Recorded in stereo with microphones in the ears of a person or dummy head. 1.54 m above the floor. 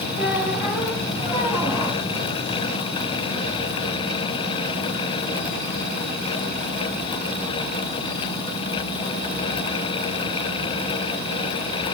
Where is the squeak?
20° right (ahead or behind), 2 m.